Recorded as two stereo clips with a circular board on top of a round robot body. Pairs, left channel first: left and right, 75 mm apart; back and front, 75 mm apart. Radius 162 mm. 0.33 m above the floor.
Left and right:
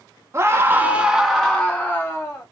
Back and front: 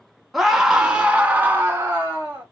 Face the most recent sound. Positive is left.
turn(degrees=50)